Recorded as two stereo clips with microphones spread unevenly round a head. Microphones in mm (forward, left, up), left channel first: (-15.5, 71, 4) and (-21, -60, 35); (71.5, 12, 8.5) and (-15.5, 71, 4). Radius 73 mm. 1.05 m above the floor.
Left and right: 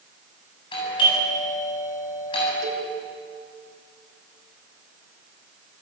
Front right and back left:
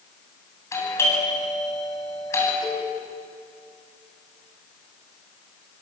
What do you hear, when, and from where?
0.7 s a doorbell: 30° left, 8.5 m
2.6 s a cowbell: 95° right, 3.5 m